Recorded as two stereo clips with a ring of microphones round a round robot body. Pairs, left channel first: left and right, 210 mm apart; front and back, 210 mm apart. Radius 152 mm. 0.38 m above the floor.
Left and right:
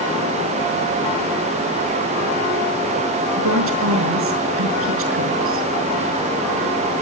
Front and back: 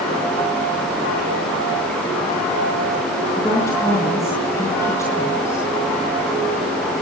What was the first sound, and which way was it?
A woman speaking, 80° right.